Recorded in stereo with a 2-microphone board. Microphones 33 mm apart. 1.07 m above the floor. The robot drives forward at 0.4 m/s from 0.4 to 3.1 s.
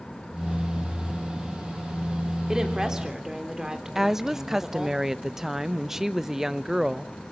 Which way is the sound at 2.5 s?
20° right (ahead or behind).